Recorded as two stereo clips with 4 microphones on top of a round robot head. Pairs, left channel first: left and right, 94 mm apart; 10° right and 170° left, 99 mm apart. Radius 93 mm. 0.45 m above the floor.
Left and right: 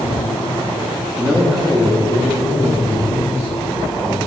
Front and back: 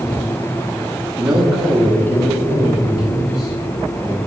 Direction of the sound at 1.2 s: 140° right.